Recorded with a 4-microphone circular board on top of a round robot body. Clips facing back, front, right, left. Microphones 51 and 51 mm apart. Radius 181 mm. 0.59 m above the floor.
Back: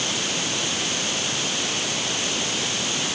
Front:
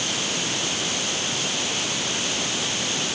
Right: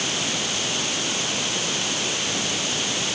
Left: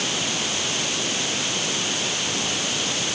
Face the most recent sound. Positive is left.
No sound to turn to.